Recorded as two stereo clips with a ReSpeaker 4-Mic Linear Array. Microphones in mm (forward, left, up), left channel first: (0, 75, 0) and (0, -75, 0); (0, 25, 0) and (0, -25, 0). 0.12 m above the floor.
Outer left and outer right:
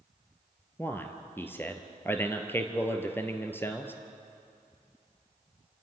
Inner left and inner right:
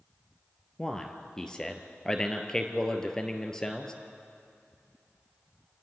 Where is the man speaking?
15° left (ahead or behind), 2 m.